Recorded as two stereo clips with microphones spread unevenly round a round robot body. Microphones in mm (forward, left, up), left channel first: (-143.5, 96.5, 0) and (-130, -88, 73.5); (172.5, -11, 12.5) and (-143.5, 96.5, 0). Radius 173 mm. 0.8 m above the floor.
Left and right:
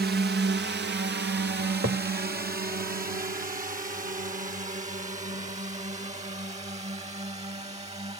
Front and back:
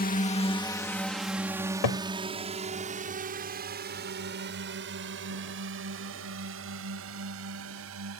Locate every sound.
0.0 s a drone: 60° right; by 8.2 s 145° right
1.6 s a cupboard door: 30° right